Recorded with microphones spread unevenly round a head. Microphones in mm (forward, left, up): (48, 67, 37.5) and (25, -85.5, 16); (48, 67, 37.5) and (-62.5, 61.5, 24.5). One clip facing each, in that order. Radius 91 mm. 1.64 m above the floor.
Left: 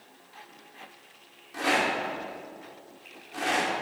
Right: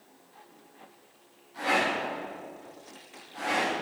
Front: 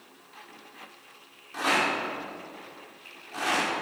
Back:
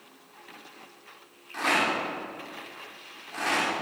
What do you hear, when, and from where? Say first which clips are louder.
1.5 s a rattle: left 1 dB, even; 80° left, 4.5 m